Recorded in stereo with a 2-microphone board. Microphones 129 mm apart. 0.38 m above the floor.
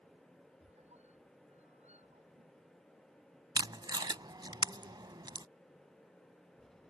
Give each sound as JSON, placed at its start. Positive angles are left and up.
{"t": 0.6, "sound": "a squeak", "side_deg": -60}
{"t": 3.5, "sound": "tape being pulled", "side_deg": -35}